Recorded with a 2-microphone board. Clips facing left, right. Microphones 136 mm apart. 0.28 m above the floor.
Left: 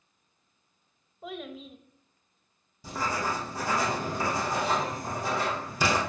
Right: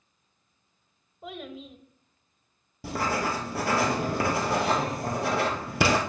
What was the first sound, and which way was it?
A child speaking, centre (ahead or behind).